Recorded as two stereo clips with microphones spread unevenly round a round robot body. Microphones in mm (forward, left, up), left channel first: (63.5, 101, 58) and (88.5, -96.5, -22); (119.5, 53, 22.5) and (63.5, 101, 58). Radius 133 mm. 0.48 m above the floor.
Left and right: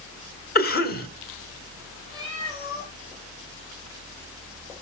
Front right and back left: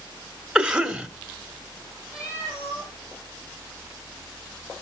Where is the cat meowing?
10° left, 10 m.